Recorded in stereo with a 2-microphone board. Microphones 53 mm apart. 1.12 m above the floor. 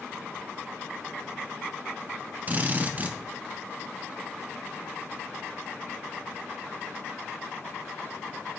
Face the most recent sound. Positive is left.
turn(degrees=-30)  # may be behind; listen again after turning